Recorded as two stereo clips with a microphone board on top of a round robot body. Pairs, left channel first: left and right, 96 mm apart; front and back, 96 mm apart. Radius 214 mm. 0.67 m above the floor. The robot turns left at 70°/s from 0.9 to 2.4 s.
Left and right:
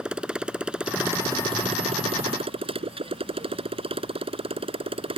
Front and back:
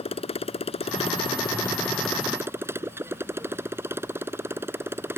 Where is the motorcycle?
10° right; by 5.2 s 115° right.